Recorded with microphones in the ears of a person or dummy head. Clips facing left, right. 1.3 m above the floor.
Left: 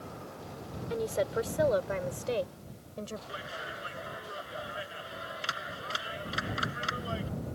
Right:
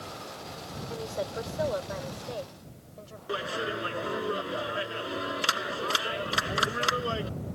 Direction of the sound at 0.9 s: 30° left (ahead or behind).